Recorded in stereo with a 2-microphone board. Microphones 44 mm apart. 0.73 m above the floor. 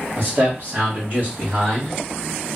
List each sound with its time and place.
0.2 s a man speaking: 45° right (ahead or behind), 1.6 m; by 1.9 s 35° right (ahead or behind), 1.3 m